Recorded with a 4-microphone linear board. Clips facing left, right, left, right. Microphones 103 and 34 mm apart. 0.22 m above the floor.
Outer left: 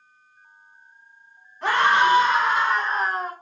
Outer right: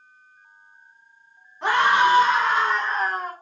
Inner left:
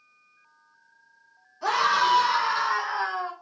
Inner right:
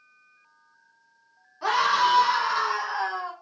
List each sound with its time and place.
1.6 s a scream: 20° right (ahead or behind), 1.3 m; by 3.3 s 20° left (ahead or behind), 1.7 m